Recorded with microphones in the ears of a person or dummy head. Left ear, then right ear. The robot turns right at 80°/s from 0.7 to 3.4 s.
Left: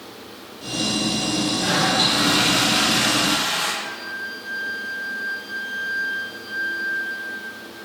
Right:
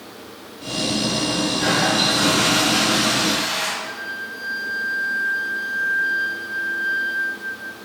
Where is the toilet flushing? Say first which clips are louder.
Even; 170° right, 3.5 m; by 3.7 s 25° right, 3.5 m.